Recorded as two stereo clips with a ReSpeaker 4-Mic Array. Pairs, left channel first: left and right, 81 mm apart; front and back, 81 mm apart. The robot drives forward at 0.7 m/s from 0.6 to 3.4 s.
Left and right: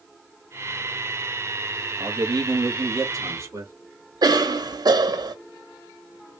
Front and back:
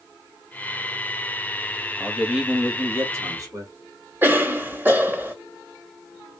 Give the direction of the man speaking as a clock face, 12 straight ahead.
3 o'clock.